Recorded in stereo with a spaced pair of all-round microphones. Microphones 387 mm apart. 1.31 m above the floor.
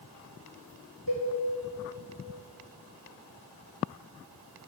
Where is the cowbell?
65° right (ahead or behind), 5 m.